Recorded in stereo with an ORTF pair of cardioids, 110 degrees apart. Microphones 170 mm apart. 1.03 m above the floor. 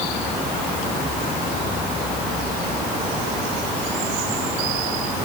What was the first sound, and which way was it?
Only background noise.